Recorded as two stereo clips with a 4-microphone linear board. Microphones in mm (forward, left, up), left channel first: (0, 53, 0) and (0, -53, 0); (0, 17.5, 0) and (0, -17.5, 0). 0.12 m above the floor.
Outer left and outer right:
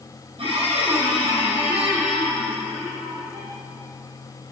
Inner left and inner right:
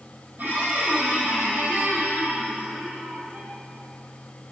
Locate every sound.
0.4 s a squeak: 60° right (ahead or behind), 3 m